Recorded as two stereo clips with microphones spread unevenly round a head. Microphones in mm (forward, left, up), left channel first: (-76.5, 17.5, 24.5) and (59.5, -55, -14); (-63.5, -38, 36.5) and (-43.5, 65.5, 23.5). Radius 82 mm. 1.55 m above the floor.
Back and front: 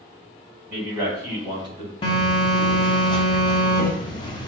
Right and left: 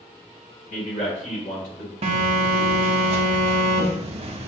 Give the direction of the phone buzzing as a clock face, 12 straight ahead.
9 o'clock.